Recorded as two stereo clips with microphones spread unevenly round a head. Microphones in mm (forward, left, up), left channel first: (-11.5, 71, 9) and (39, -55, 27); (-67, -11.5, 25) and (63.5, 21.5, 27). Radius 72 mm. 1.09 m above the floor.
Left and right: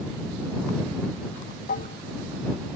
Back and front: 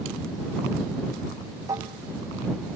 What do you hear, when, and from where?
1.7 s dishes clattering: 80° left